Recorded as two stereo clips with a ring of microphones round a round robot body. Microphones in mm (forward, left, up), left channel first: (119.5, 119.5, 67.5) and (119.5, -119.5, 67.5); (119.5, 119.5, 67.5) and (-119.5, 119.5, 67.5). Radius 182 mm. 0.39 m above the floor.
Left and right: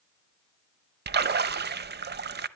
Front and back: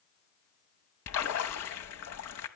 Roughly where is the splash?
Ahead right.